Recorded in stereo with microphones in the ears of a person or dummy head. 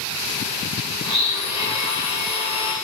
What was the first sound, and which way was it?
A blender, 30° left (ahead or behind).